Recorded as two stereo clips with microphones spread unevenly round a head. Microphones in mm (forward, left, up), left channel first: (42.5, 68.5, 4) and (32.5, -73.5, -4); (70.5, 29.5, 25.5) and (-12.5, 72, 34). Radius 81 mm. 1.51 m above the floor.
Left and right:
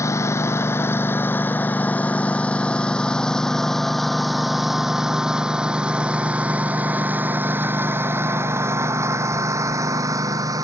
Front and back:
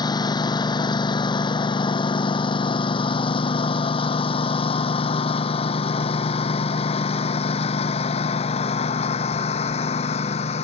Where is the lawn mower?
15° left; by 10.7 s 30° right.